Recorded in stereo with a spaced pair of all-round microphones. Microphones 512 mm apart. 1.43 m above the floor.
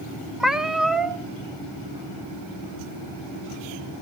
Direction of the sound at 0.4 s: Centre (ahead or behind).